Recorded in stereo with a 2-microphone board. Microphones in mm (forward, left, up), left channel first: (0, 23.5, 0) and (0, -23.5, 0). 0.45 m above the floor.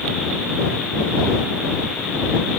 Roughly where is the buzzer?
No buzzer in this recording.